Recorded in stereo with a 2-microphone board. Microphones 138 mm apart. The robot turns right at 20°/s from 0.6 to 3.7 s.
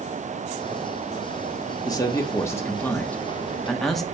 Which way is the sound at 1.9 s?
140° left.